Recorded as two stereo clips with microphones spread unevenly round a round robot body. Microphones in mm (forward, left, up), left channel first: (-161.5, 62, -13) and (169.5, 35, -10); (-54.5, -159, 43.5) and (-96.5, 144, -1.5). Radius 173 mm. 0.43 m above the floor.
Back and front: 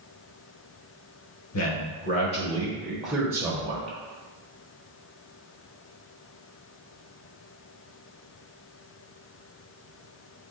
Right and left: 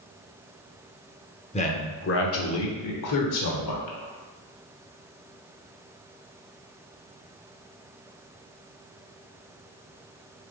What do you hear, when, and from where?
1.5 s a man speaking: 155° right, 1.0 m; by 4.0 s 75° right, 1.4 m